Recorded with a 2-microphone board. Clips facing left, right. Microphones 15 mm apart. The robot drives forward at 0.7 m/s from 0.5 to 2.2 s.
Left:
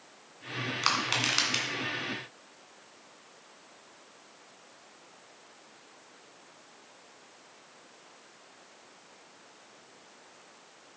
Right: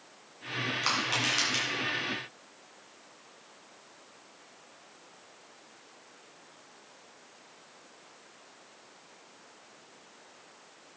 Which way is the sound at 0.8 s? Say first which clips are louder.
Left 2 dB; 30° left (ahead or behind).